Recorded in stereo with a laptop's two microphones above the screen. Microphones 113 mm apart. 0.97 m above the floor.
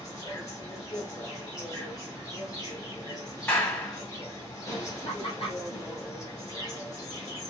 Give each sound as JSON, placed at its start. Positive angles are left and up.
{"t": 0.0, "sound": "an insect", "side_deg": 30, "distance_m": 1.2}
{"t": 3.5, "sound": "a clap", "side_deg": 15, "distance_m": 1.3}
{"t": 5.0, "sound": "laughter", "side_deg": 55, "distance_m": 1.3}